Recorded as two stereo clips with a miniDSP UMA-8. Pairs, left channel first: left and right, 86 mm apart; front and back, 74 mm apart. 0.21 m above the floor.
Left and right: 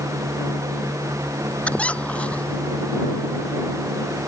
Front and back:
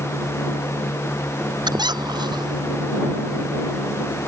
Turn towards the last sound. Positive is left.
turn(degrees=165)